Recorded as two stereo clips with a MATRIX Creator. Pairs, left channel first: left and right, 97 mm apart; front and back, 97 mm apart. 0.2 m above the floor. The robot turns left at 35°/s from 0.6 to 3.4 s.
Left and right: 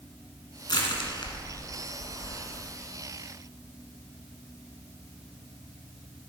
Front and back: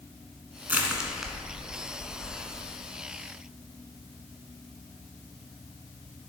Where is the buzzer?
No buzzer in this recording.